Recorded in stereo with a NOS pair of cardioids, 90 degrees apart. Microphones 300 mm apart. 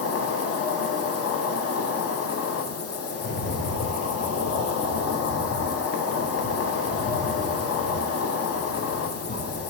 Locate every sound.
0.0 s an insect: 55° left, 0.9 m
3.1 s a rattle: 40° left, 3.5 m